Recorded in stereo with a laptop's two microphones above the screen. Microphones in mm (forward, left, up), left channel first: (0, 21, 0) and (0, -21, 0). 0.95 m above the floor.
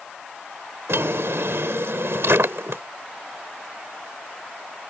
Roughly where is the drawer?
Right.